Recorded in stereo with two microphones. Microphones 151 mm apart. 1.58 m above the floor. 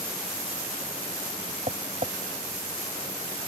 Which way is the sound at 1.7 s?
45° right (ahead or behind).